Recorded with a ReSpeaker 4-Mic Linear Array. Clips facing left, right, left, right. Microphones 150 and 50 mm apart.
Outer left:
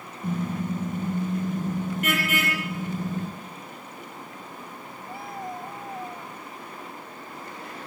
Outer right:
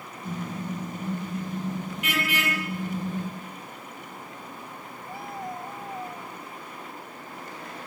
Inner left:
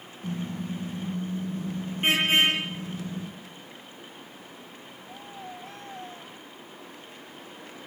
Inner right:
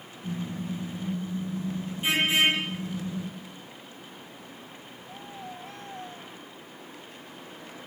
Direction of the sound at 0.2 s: 55° left (ahead or behind).